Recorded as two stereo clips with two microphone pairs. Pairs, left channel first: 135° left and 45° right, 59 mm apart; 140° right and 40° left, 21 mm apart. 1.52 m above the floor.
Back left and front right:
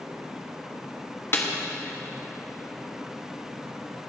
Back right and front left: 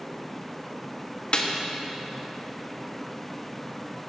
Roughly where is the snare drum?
Behind.